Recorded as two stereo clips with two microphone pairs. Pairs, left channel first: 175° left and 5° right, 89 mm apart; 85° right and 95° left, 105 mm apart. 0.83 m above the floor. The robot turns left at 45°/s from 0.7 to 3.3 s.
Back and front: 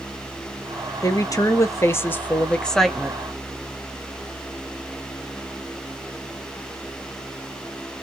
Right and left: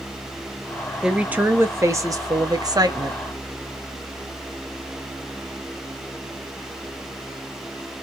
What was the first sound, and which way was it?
A woman speaking, 170° left.